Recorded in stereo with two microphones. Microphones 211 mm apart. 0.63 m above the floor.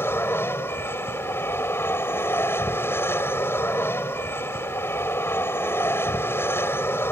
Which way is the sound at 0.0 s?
10° left (ahead or behind).